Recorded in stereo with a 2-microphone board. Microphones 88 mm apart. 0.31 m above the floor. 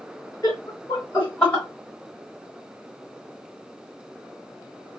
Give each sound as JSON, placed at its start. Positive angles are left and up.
{"t": 0.4, "sound": "laughter", "side_deg": 45, "distance_m": 1.4}